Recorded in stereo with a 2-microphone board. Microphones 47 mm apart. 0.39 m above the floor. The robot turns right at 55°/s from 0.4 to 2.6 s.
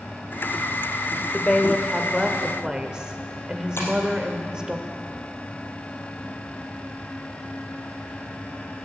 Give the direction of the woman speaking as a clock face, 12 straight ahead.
7 o'clock.